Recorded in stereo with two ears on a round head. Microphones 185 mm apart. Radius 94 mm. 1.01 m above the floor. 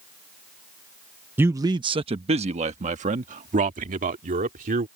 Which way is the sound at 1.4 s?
10° right (ahead or behind).